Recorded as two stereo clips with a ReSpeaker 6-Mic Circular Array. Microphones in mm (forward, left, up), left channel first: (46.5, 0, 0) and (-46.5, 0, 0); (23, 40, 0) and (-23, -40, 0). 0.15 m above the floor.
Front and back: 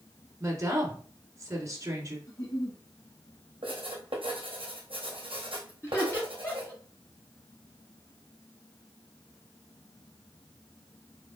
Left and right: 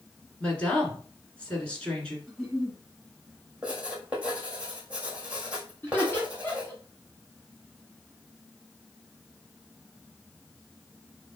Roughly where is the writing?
Behind.